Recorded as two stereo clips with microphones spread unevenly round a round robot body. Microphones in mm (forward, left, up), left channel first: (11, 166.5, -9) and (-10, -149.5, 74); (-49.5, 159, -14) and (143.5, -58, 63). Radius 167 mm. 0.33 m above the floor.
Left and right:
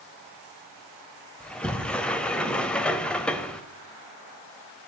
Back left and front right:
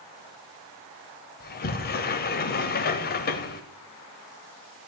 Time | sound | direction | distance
1.4 | a sliding door | 160° left | 0.6 m